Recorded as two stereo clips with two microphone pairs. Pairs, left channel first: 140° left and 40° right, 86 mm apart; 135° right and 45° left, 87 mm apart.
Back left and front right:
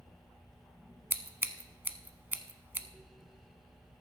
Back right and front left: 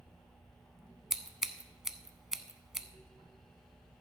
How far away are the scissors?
About 0.7 m.